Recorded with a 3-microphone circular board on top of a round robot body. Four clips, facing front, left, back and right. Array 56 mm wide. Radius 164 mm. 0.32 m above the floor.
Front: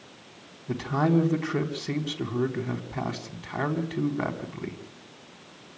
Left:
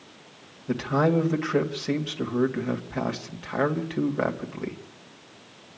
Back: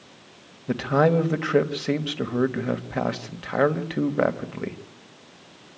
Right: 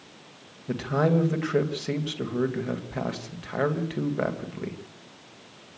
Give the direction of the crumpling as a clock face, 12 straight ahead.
No crumpling in this recording.